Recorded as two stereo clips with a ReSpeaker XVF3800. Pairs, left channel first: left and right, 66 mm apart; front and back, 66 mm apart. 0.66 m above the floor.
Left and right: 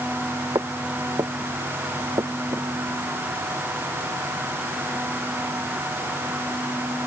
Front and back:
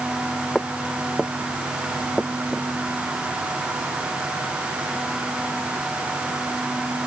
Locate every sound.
0.6 s footsteps: 80° right; by 2.7 s 95° right